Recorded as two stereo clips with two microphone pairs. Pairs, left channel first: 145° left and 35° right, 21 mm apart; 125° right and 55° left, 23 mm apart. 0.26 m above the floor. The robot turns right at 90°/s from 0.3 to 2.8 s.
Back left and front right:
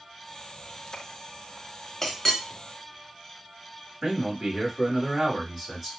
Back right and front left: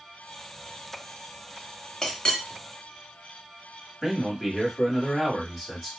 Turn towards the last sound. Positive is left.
turn(degrees=-20)